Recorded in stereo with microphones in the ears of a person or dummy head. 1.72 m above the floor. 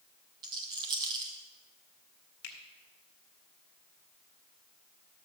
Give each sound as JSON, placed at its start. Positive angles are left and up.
{"t": 0.4, "sound": "a rattle", "side_deg": -25, "distance_m": 1.3}
{"t": 2.4, "sound": "a finger snap", "side_deg": 55, "distance_m": 1.6}